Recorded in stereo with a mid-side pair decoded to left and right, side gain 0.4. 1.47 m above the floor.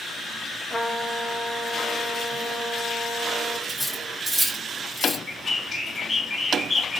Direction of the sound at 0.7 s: 15° left.